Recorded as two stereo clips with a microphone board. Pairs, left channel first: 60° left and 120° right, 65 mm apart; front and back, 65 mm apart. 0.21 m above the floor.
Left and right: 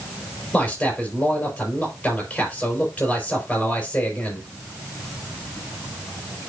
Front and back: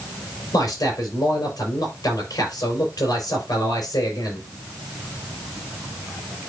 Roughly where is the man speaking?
Ahead.